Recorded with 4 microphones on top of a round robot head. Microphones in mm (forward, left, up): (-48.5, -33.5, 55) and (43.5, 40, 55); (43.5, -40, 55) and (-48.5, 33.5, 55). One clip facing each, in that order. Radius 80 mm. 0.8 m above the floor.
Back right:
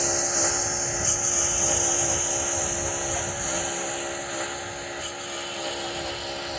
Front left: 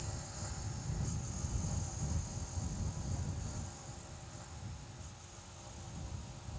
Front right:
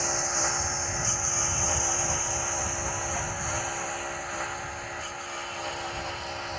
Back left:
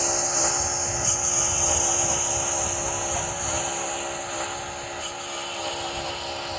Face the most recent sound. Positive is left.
turn(degrees=-145)